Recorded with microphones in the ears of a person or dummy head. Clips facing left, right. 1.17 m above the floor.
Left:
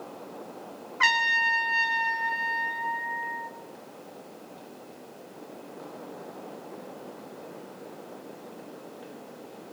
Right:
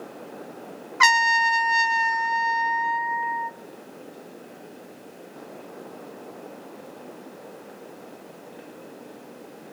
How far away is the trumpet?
About 0.7 m.